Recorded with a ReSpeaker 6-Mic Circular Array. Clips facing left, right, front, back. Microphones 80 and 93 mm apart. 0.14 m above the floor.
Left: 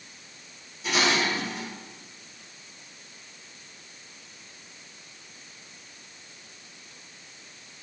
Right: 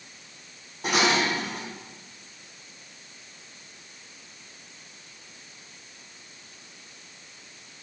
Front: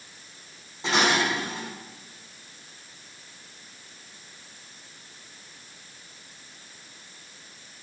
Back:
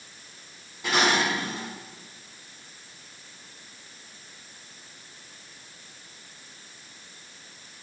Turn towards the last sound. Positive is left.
turn(degrees=-65)